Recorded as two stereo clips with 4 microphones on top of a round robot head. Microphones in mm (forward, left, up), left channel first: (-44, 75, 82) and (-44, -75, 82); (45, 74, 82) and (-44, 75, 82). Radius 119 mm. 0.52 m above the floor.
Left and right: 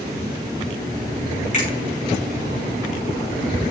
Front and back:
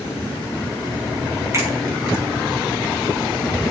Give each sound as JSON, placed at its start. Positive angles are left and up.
{"t": 1.5, "sound": "a finger snap", "azimuth_deg": 125, "distance_m": 6.0}